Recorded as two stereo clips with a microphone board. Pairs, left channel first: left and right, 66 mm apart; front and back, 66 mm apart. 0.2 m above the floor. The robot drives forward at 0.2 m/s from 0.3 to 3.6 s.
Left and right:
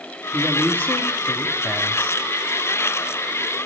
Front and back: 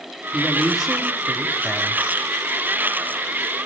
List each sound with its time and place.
0.3 s a woman speaking: 95° left, 1.1 m; by 2.2 s 130° left, 1.2 m